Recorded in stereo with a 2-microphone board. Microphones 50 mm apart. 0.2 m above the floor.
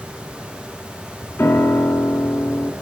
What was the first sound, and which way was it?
A piano, 50° left (ahead or behind).